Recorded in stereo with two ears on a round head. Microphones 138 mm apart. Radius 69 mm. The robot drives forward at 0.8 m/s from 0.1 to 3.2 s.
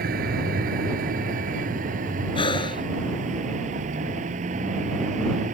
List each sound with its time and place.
0.0 s a vehicle: 65° right (ahead or behind); by 5.5 s 50° right (ahead or behind)
2.4 s breathing: 35° left (ahead or behind); by 2.9 s 30° left (ahead or behind)